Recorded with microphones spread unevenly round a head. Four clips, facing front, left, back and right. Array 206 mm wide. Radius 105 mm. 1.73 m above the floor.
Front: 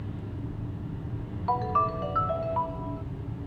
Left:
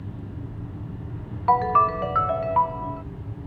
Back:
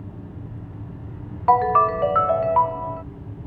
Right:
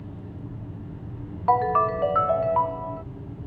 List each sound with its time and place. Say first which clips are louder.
1.5 s a ringtone: left 2 dB, back 10 dB; 175° right